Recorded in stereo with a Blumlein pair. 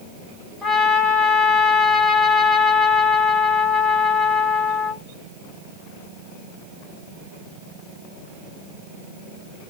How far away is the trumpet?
About 1.5 m.